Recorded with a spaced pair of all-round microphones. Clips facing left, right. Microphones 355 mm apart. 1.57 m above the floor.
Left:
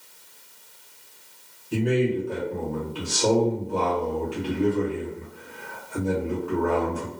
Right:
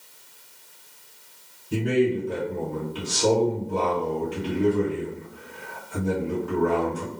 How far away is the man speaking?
About 1.6 m.